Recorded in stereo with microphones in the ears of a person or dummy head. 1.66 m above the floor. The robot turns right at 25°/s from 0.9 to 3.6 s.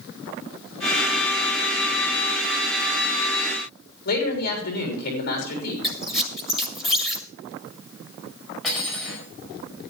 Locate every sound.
4.0 s a man speaking: 45° left (ahead or behind), 3.5 m
5.8 s a squeak: centre (ahead or behind), 1.4 m
8.6 s cutlery clinking: 5° right (ahead or behind), 4.5 m